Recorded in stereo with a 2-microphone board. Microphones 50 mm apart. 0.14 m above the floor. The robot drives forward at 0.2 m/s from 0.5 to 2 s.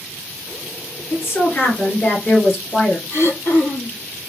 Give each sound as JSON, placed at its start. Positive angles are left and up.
{"t": 1.1, "sound": "a woman speaking", "side_deg": 50, "distance_m": 1.8}
{"t": 3.1, "sound": "throat clearing", "side_deg": 55, "distance_m": 0.7}